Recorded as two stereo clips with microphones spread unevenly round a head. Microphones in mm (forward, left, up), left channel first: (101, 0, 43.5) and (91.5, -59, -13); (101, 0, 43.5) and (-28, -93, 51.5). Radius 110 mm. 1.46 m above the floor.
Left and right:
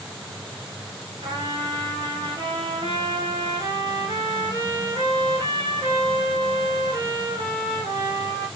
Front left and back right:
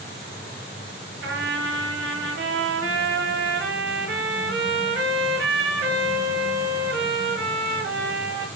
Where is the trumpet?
160° right, 6 m.